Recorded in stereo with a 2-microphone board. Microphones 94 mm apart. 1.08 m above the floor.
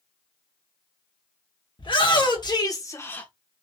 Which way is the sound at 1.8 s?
65° left (ahead or behind).